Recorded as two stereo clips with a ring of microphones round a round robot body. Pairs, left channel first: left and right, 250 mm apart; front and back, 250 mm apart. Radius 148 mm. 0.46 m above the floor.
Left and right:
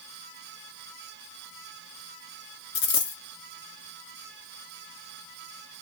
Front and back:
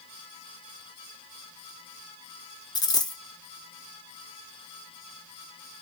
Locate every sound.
2.8 s a dropped coin: 75° left, 1.2 m